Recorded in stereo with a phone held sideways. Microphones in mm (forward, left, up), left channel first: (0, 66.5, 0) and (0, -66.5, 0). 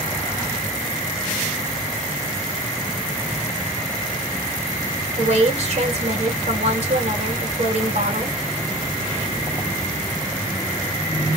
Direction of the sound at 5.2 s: 50° right (ahead or behind).